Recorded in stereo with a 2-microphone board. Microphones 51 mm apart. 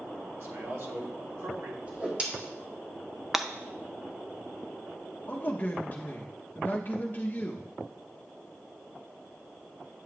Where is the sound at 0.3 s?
60° right (ahead or behind), 1.6 m.